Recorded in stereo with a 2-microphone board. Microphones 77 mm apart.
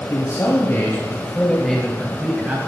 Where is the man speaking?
45° left (ahead or behind), 2 m; by 2.6 s 25° right (ahead or behind), 2.0 m.